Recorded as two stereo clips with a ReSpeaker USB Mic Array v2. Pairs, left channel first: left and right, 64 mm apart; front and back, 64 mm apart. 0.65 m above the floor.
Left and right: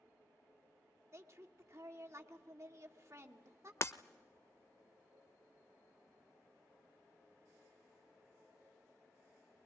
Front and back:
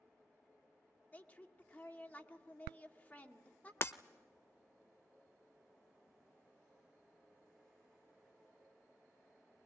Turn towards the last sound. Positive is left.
turn(degrees=50)